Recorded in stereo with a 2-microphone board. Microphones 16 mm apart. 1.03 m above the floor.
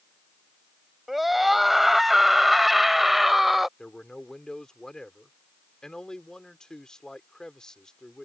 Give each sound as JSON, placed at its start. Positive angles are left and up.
{"t": 1.1, "sound": "a scream", "side_deg": -10}
{"t": 3.8, "sound": "a man speaking", "side_deg": 45}